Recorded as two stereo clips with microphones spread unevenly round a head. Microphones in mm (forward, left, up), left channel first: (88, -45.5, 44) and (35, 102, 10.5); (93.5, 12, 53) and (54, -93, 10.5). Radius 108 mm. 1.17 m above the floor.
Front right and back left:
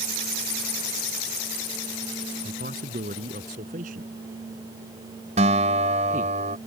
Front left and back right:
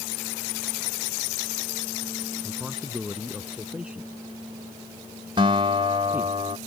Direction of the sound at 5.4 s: 175° left.